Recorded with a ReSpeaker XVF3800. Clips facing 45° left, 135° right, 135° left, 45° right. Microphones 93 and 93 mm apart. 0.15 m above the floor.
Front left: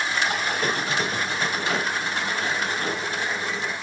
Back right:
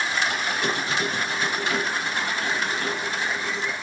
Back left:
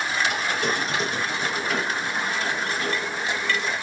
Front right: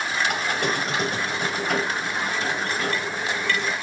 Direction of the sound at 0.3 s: 5° right.